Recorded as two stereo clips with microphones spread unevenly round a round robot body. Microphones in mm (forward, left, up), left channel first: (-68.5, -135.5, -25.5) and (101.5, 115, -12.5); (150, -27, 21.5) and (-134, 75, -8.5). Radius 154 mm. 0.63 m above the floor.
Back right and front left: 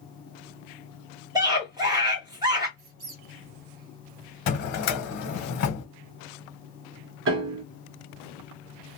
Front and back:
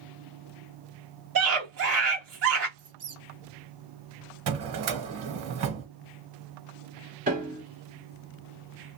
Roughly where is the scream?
Behind left.